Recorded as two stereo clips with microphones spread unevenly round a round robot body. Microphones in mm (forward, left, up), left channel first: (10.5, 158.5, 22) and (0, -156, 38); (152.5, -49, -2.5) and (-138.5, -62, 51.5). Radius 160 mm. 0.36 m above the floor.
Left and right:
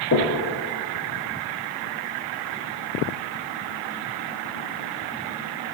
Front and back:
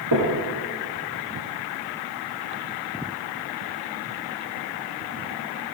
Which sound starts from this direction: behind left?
Knocking, at 0.1 s.